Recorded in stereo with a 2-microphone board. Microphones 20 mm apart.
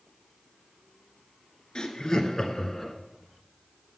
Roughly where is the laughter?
Left.